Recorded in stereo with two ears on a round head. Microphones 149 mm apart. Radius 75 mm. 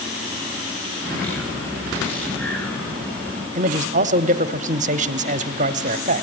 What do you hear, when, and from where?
1.1 s a bird: 10° left (ahead or behind), 5 m
3.5 s a man speaking: 45° right (ahead or behind), 1.2 m